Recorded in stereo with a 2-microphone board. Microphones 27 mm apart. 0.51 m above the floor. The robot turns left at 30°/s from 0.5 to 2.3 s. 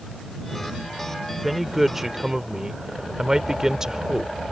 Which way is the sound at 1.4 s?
Centre (ahead or behind).